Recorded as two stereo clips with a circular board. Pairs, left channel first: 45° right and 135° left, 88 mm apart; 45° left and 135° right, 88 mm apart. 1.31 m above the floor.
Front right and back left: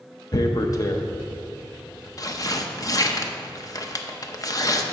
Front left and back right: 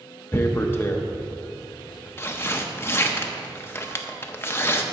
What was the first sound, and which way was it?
Tearing paper, 10° right.